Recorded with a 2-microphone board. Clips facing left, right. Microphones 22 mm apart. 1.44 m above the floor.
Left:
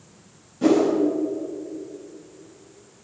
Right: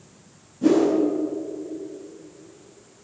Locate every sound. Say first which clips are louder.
0.6 s a whoosh: even; 45° left (ahead or behind), 3.5 m